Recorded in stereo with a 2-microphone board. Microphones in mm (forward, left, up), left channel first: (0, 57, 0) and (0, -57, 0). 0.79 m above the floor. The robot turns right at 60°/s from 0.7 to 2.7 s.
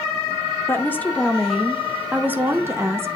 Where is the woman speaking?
20° left (ahead or behind), 0.6 m; by 3.1 s 25° right (ahead or behind), 0.6 m.